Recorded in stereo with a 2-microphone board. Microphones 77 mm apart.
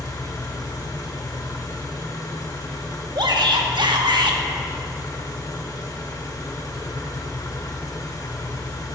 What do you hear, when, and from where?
0.0 s an engine running: 55° left (ahead or behind), 1.2 m
3.1 s a shout: 75° right (ahead or behind), 1.2 m